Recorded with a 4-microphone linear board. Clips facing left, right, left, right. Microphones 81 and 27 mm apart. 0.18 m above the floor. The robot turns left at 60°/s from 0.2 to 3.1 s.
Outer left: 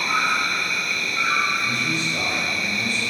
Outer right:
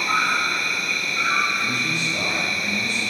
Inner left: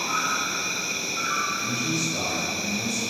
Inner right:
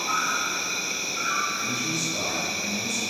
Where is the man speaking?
20° left (ahead or behind), 1.4 m; by 3.0 s 10° left (ahead or behind), 1.4 m.